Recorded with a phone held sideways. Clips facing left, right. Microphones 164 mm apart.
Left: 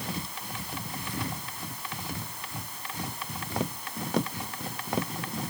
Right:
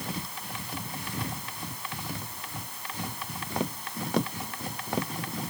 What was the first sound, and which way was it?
Only background noise.